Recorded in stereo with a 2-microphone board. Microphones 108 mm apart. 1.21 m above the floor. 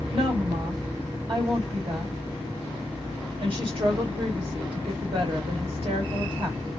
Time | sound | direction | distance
0.1 | a woman speaking | 50° right (ahead or behind) | 2 m